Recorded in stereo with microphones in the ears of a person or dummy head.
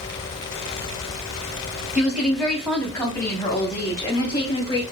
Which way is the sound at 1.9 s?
5° right (ahead or behind).